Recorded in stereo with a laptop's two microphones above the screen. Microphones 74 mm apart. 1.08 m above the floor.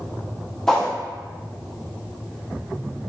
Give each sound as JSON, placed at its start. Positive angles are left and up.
{"t": 0.7, "sound": "a whoosh", "side_deg": 5, "distance_m": 0.6}